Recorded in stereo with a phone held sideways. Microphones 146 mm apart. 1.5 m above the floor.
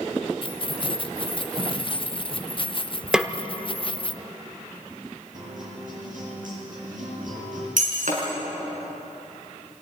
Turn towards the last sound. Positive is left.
turn(degrees=-75)  # may be behind; listen again after turning